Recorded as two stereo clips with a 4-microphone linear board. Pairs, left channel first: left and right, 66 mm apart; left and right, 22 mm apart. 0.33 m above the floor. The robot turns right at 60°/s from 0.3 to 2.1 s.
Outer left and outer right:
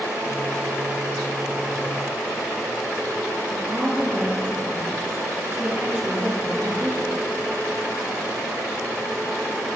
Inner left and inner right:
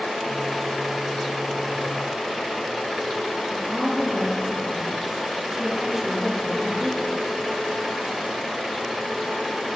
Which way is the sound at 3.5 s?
30° right (ahead or behind).